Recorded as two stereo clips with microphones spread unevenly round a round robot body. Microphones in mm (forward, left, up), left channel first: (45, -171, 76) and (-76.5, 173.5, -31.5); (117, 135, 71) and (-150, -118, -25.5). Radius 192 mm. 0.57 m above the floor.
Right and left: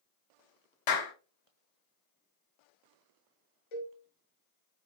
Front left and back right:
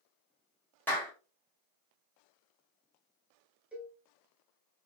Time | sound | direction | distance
0.9 | a clap | 50° right | 1.5 m
3.7 | a cowbell | 50° right | 1.4 m